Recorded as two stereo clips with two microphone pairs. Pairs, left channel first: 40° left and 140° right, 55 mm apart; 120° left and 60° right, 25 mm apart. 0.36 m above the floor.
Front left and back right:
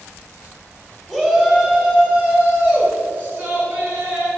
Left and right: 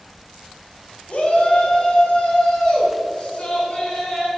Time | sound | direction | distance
1.1 | a shout | 135° left | 2 m